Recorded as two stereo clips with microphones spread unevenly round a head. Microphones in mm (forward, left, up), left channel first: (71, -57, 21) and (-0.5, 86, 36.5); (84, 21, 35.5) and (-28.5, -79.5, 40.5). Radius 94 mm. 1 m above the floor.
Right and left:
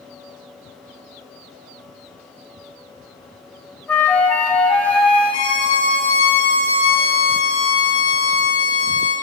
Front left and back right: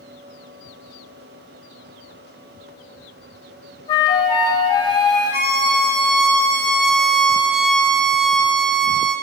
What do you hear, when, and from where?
3.9 s a flute: 20° left, 0.6 m
5.3 s a violin: 125° right, 1.3 m